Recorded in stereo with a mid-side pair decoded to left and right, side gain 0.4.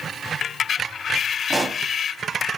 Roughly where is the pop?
Ahead right.